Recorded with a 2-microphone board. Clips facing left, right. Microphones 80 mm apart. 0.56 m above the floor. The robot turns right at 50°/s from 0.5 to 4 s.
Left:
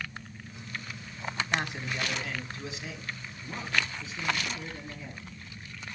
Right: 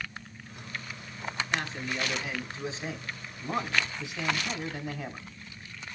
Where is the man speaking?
155° left, 2 m; by 5.3 s 80° right, 2 m.